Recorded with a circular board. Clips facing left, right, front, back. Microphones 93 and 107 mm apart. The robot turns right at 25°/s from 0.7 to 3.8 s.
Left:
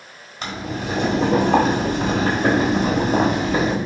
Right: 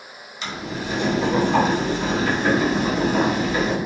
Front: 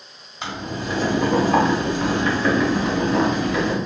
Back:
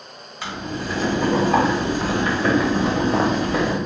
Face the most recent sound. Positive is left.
turn(degrees=140)